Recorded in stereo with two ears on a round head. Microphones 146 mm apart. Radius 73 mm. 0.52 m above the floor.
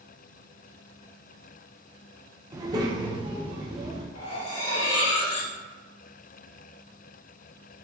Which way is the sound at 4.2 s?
75° left (ahead or behind).